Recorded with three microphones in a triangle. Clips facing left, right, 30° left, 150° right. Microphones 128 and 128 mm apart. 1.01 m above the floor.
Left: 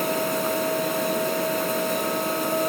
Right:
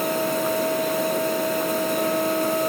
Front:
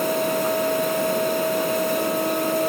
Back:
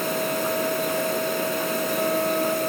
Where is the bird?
No bird in this recording.